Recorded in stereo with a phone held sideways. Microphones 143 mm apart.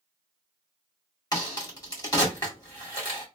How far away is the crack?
About 1.9 m.